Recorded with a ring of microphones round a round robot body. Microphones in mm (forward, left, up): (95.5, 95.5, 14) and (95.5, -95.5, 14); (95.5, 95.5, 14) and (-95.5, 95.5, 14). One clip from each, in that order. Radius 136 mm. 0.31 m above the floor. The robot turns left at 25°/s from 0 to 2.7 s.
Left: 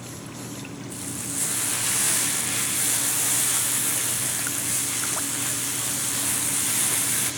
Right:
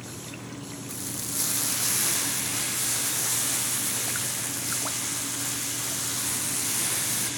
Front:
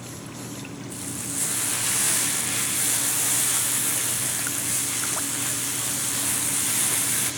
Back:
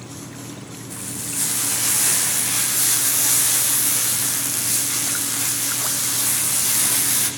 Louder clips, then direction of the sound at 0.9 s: Even, back 4 dB; 110° right.